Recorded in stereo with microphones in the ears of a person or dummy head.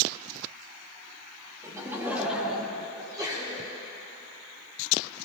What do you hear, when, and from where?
1.6 s laughter: 15° right (ahead or behind), 1.6 m; by 2.9 s 10° left (ahead or behind), 1.3 m
3.0 s a sneeze: 15° right (ahead or behind), 3 m